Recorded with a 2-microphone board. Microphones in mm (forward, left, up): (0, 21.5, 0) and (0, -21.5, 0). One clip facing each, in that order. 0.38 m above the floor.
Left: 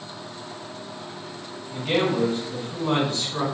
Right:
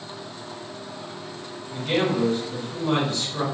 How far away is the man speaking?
About 1.5 m.